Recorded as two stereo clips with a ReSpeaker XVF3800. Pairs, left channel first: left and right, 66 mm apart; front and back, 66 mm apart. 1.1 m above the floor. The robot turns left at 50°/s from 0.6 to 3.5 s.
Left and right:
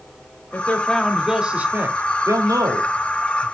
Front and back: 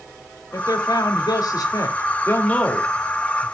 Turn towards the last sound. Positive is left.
turn(degrees=-115)